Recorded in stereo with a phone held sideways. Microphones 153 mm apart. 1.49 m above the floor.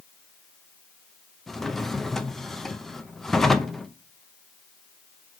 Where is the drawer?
5° left (ahead or behind), 0.6 m.